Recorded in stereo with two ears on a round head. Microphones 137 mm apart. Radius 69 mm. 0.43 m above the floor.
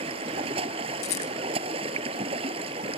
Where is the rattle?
75° left (ahead or behind).